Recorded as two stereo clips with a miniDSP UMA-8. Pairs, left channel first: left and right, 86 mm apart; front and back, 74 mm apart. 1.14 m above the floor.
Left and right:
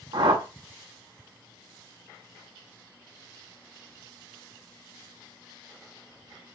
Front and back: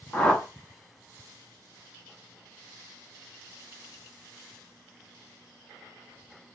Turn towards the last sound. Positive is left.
turn(degrees=-75)